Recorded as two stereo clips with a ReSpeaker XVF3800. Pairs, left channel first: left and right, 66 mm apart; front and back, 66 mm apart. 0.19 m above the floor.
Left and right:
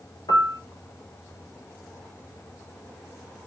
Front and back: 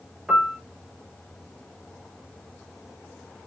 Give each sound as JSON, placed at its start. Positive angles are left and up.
{"t": 0.3, "sound": "a piano", "azimuth_deg": 100, "distance_m": 0.8}